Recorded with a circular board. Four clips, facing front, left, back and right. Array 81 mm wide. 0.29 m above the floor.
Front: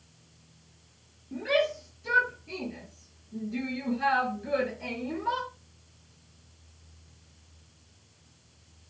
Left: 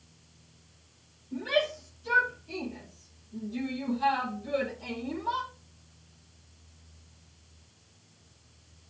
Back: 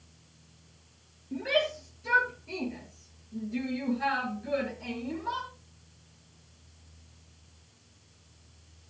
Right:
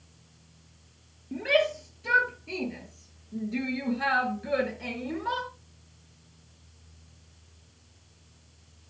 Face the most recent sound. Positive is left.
turn(degrees=-70)